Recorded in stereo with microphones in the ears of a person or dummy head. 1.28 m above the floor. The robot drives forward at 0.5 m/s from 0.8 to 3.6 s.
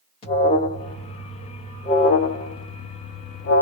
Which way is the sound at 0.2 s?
25° left (ahead or behind).